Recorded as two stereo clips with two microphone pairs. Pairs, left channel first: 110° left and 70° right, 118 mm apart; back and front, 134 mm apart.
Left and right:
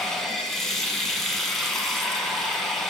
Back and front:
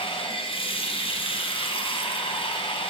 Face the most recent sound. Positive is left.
turn(degrees=-165)